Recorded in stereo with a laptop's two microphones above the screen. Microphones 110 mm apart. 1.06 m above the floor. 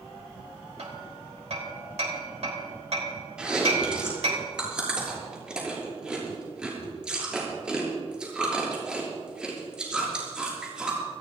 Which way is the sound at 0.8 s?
75° right (ahead or behind).